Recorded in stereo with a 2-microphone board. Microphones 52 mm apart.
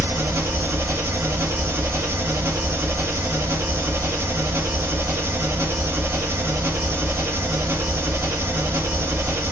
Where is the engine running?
50° right (ahead or behind), 1.2 m.